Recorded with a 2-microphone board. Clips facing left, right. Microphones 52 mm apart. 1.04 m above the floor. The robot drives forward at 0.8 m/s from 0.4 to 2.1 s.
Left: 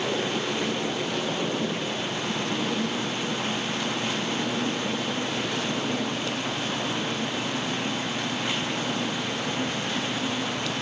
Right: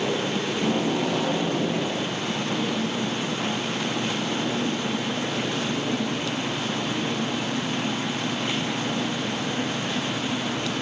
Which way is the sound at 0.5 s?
80° right.